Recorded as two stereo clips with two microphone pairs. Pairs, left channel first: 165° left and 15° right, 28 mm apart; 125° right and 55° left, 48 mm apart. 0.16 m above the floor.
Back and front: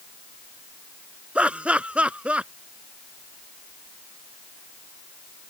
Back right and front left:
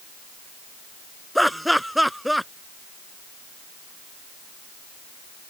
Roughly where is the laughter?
Ahead right.